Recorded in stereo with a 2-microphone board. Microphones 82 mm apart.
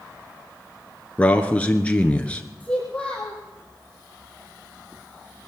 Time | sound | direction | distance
1.2 | a man speaking | 15° left (ahead or behind) | 1.1 m
2.6 | a child speaking | 10° left (ahead or behind) | 3 m